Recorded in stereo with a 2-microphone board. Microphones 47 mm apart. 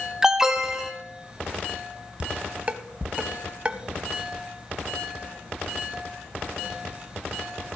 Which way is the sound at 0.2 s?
15° right (ahead or behind).